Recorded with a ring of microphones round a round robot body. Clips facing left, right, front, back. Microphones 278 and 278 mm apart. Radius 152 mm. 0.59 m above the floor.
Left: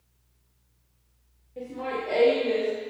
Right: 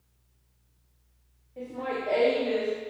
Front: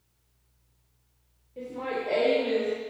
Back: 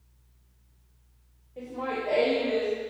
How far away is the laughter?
About 1.1 m.